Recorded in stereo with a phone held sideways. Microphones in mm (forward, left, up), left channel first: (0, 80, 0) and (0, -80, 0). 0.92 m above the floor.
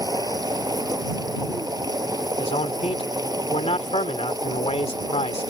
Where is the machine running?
25° right (ahead or behind).